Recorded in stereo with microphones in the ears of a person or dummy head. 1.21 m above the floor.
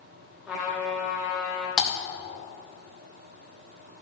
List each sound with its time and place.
0.5 s a trumpet: 5° right (ahead or behind), 2 m
1.8 s typing on a keyboard: 5° left (ahead or behind), 1.8 m